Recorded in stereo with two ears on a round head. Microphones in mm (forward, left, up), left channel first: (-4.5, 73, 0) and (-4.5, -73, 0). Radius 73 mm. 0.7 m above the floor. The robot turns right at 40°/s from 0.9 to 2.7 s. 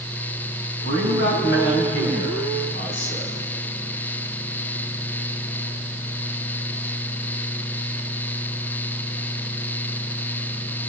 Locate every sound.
0.8 s a man speaking: 45° left, 5 m; by 3.4 s 115° left, 5 m